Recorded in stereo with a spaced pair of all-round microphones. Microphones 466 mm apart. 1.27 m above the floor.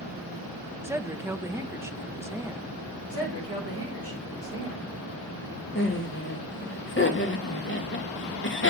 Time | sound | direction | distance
0.8 | a woman speaking | 5° right (ahead or behind) | 0.5 m
3.1 | a woman speaking | 30° right (ahead or behind) | 5 m
5.8 | laughter | 25° left (ahead or behind) | 1.4 m